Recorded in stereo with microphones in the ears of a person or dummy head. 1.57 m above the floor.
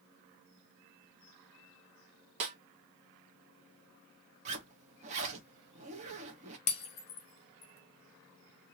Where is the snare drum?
35° right (ahead or behind), 0.9 m.